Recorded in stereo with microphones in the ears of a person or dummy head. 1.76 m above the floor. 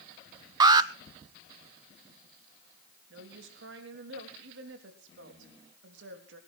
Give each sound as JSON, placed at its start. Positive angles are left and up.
{"t": 0.6, "sound": "an alarm", "side_deg": -25, "distance_m": 0.9}
{"t": 3.1, "sound": "a woman speaking", "side_deg": -70, "distance_m": 3.5}